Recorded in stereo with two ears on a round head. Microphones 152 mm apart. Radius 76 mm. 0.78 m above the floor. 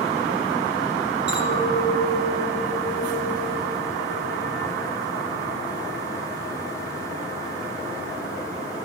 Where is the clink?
85° right, 6 m.